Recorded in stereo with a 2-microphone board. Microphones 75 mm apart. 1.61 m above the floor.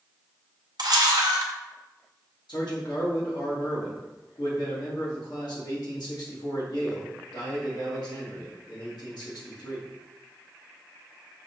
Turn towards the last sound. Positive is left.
turn(degrees=70)  # may be behind; listen again after turning